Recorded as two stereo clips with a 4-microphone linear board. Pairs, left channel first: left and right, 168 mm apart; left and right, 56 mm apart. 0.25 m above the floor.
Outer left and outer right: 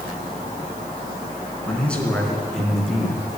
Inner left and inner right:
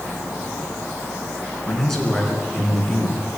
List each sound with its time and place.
1.6 s a man speaking: 10° left (ahead or behind), 3 m; by 3.3 s centre (ahead or behind), 4 m